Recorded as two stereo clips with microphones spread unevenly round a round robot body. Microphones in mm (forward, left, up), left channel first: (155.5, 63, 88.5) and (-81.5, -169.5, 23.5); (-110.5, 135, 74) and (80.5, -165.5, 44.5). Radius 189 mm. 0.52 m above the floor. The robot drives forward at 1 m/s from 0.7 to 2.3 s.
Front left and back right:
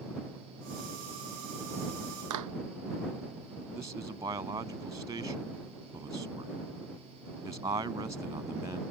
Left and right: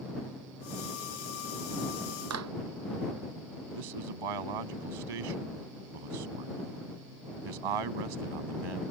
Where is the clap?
105° right.